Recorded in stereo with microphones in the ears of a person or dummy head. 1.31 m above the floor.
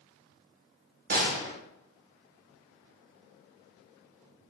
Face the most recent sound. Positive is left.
turn(degrees=-50)  # may be behind; listen again after turning